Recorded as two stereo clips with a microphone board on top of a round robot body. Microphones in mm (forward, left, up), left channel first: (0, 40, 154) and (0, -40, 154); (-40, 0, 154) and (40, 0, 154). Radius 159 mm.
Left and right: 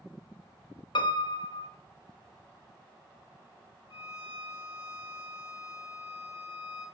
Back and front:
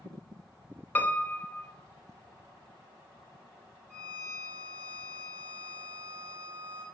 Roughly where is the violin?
Ahead left.